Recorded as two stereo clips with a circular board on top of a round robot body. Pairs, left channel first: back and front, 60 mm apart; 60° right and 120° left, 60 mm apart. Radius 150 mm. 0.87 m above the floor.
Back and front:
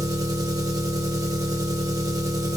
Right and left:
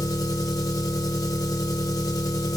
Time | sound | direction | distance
0.0 | an engine running | 30° right | 0.9 m